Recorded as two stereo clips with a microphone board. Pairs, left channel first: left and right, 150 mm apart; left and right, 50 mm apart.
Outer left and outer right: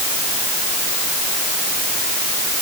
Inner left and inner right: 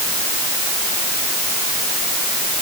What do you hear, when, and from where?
Only background noise.